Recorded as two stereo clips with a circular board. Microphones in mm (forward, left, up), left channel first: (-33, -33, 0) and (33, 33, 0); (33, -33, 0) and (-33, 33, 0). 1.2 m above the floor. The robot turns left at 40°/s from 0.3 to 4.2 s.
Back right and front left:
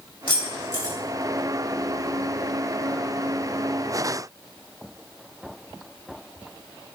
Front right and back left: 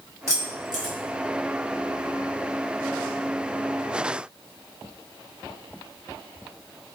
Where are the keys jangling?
165° right, 1.3 m; by 0.9 s 165° left, 1.3 m.